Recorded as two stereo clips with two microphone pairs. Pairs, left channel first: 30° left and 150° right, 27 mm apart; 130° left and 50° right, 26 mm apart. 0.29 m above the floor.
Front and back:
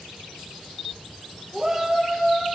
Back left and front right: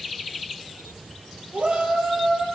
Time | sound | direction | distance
1.5 | a shout | 75° right | 8 m